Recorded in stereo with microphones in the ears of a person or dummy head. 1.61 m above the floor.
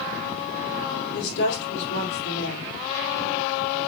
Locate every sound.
1.1 s a woman speaking: 60° left (ahead or behind), 4 m